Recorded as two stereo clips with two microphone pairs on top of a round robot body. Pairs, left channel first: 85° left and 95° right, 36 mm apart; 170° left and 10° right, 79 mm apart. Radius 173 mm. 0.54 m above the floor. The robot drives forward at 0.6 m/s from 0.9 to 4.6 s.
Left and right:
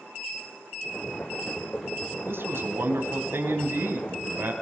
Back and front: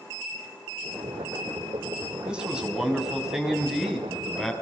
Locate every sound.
2.2 s a man speaking: 85° right, 5.5 m; by 4.5 s 100° right, 5.5 m